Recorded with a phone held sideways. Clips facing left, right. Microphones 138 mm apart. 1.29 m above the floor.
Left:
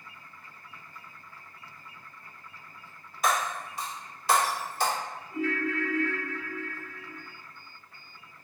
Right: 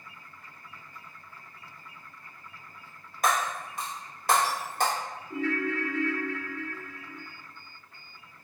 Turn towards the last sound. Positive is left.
turn(degrees=-70)  # may be behind; listen again after turning